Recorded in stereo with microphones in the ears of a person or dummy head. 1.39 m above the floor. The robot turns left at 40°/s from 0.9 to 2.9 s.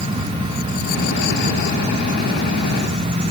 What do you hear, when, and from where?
Only background noise.